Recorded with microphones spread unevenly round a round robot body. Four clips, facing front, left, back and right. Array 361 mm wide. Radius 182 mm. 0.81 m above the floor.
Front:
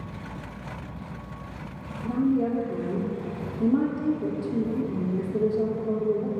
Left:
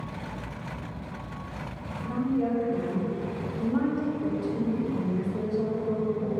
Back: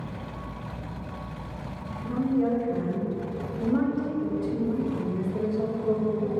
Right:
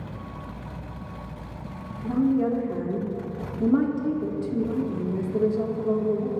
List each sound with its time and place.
2.0 s a woman speaking: 50° right, 2 m